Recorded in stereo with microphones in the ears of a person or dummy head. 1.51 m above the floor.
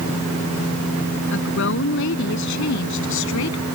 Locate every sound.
1.3 s a woman speaking: 65° left (ahead or behind); by 3.6 s 70° left (ahead or behind)